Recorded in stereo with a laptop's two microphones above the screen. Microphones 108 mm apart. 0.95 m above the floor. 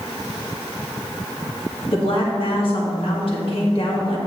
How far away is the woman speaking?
About 2 m.